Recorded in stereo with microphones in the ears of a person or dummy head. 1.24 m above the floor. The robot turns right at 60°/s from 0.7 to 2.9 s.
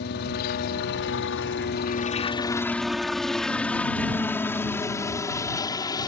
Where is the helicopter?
60° left (ahead or behind); by 6.1 s 20° left (ahead or behind).